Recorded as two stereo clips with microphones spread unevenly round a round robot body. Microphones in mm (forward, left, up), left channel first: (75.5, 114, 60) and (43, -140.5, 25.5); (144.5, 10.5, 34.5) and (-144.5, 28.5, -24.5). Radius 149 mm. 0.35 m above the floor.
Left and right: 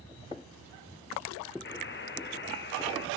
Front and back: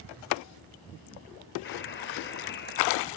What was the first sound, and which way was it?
A buzzer, 50° left.